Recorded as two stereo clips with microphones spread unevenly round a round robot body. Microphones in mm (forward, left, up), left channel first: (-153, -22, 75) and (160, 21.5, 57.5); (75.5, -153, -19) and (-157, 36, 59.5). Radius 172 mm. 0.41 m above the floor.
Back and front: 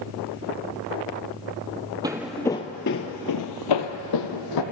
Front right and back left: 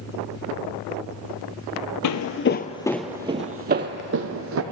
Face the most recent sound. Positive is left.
turn(degrees=170)